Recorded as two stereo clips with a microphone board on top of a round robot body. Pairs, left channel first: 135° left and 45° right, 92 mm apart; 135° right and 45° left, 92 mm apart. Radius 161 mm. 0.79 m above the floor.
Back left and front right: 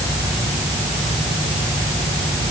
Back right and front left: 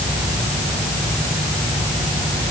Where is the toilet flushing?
I don't hear a toilet flushing.